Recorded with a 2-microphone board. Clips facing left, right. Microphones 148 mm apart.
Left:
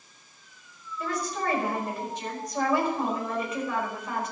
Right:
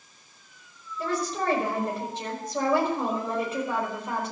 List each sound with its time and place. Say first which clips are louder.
1.0 s a woman speaking: right 2 dB; 30° right (ahead or behind), 5 m